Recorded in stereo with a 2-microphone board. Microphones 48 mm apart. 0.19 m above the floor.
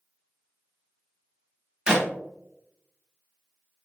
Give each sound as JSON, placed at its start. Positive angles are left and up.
{"t": 1.9, "sound": "a clap", "side_deg": -15, "distance_m": 0.9}